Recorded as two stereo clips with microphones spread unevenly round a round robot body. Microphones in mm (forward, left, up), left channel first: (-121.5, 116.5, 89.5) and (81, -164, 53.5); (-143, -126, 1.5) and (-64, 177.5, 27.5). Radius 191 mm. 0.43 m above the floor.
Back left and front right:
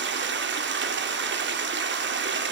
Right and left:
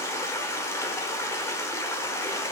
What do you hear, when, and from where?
0.0 s running water: 35° right, 1.0 m